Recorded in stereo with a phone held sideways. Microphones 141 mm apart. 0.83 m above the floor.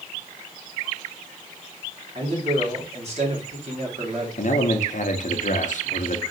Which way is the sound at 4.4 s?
60° left (ahead or behind).